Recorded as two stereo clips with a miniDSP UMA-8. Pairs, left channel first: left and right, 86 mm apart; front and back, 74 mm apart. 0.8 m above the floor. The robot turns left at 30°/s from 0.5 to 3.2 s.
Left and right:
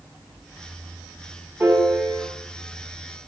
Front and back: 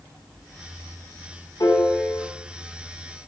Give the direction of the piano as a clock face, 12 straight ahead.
1 o'clock.